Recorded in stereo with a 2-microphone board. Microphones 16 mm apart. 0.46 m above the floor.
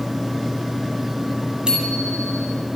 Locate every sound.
1.7 s a bicycle bell: 60° right (ahead or behind), 10 m